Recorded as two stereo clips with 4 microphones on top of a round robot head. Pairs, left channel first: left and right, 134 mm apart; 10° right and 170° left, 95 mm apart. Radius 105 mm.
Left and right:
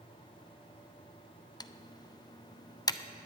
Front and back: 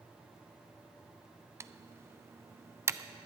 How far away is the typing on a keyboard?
About 0.5 m.